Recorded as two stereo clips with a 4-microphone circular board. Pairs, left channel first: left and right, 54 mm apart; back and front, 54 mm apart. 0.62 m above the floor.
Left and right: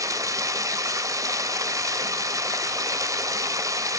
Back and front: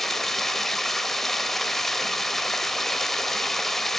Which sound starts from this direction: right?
Running water, at 0.0 s.